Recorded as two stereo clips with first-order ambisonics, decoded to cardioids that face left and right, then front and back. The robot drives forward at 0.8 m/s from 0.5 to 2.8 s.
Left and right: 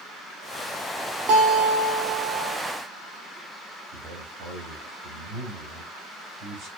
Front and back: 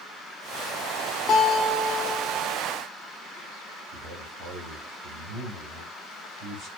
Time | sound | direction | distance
1.3 | a guitar | 70° right | 2 m
3.9 | a man speaking | 130° right | 4 m